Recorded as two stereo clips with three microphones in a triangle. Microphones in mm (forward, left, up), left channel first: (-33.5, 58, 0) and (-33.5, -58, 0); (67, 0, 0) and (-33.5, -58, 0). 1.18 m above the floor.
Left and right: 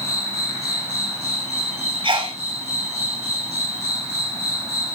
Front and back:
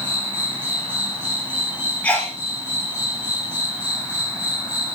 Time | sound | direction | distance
0.0 | an insect | 80° right | 5 m
2.0 | a sneeze | 50° right | 4.5 m